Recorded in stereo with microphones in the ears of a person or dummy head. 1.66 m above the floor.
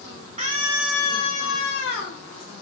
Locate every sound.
0.4 s a scream: 35° right (ahead or behind), 1.0 m; by 2.2 s 70° left (ahead or behind), 1.7 m